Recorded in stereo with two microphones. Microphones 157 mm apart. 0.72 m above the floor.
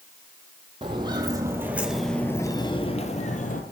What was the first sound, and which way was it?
Footsteps, 30° right (ahead or behind).